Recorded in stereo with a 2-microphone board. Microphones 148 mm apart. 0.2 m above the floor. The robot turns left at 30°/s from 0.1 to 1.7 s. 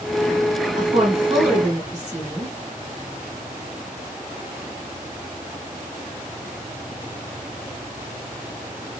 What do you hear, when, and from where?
0.8 s a woman speaking: 40° right (ahead or behind), 1.2 m; by 2.5 s 35° right (ahead or behind), 1.2 m